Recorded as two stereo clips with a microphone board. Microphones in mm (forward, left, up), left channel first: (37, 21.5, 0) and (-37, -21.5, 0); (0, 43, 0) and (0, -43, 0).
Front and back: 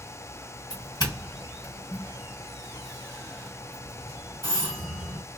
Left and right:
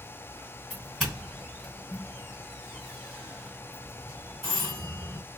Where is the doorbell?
5° left, 2 m.